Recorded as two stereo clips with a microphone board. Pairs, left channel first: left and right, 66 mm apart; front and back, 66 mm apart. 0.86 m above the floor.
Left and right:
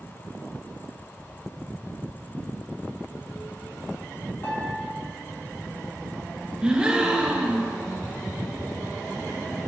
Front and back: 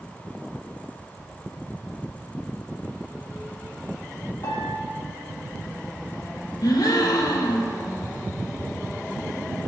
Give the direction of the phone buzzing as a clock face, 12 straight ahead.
7 o'clock.